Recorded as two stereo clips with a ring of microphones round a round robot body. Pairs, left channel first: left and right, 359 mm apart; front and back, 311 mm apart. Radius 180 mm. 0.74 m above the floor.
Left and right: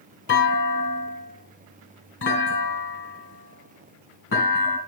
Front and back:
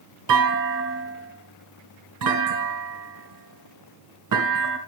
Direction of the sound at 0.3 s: 150° left.